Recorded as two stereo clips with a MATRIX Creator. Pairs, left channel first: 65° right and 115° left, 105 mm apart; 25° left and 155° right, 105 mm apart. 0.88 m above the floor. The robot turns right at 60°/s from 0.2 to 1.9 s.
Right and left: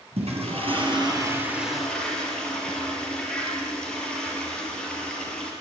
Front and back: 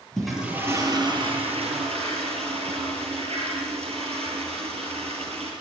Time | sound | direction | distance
0.2 | a toilet flushing | 110° left | 6 m